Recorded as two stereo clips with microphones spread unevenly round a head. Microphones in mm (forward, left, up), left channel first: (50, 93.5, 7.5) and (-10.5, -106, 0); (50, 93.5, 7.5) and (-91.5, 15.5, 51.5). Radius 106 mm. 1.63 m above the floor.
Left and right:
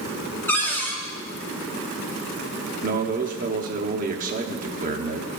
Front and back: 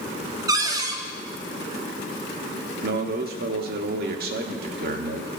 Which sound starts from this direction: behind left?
A cupboard door, at 0.5 s.